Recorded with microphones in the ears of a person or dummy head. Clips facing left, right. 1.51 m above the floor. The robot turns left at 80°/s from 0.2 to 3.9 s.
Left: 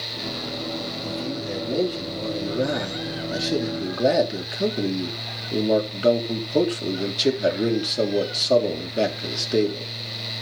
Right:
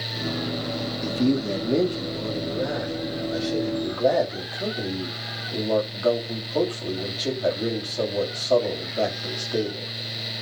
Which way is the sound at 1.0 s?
95° right.